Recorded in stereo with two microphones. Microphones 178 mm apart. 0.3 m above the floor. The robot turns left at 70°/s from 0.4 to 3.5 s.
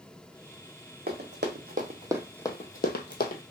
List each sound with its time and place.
1.1 s running footsteps: 60° right (ahead or behind), 1.1 m; by 3.4 s 45° left (ahead or behind), 0.7 m